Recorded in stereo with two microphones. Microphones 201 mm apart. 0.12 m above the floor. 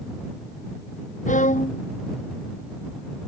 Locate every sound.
1.3 s a violin: 40° left (ahead or behind)